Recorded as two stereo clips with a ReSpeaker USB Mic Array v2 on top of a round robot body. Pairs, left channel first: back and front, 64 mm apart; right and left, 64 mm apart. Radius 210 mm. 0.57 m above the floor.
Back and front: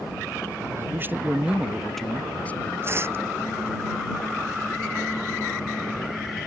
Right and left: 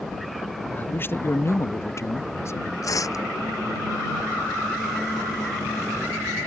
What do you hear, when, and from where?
0.8 s a man speaking: 35° right; by 2.7 s 125° right
2.8 s tearing paper: 55° right